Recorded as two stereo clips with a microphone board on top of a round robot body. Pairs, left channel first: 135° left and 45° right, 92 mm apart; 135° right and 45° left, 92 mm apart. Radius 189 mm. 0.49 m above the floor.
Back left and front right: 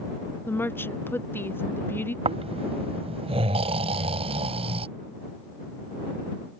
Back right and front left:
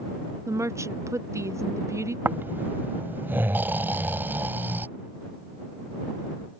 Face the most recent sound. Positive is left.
turn(degrees=-25)